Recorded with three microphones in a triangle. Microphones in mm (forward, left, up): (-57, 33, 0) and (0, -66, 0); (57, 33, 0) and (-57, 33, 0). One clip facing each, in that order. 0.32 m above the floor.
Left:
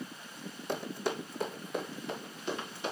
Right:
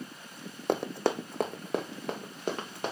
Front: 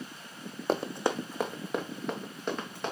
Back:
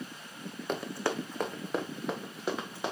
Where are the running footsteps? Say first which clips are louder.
Right 6 dB, front 4 dB; 50° right, 0.7 m; by 2.9 s 100° right, 2.5 m.